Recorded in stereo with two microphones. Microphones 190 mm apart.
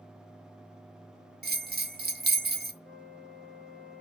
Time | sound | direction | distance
1.4 | a bell | 55° right (ahead or behind) | 0.5 m
2.8 | a flute | 80° right | 2 m